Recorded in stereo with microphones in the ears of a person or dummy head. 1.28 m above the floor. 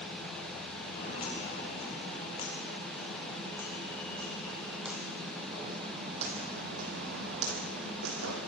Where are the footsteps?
30° left (ahead or behind), 8 m; by 8.4 s 70° right (ahead or behind), 5 m.